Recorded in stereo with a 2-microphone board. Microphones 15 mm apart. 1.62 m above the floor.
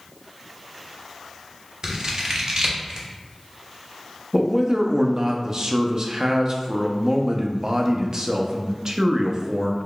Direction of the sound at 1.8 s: 50° right (ahead or behind).